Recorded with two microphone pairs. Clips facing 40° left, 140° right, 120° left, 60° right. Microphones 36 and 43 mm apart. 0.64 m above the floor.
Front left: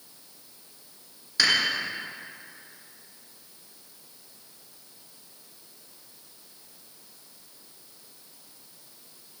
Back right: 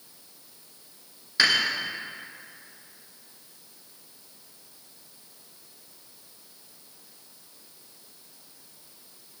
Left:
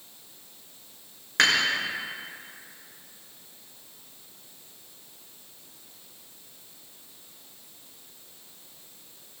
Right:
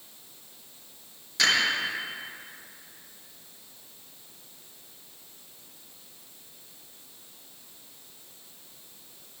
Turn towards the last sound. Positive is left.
turn(degrees=150)